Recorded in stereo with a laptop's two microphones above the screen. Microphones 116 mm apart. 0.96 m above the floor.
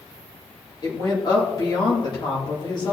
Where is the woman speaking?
40° left (ahead or behind), 2.5 m.